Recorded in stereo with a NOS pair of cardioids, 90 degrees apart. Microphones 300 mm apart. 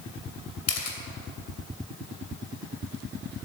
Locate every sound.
0.7 s a camera shutter: 60° left, 2.5 m